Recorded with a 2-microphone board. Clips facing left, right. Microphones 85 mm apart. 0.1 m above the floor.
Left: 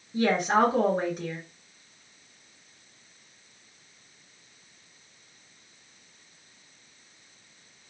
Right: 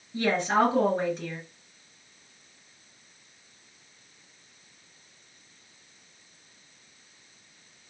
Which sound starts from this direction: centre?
A woman speaking, at 0.1 s.